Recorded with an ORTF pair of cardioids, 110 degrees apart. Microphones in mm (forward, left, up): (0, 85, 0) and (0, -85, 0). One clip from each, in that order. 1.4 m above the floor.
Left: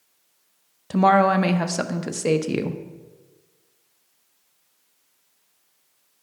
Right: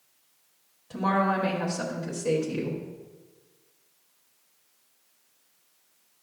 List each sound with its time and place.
0.9 s a woman speaking: 65° left, 0.7 m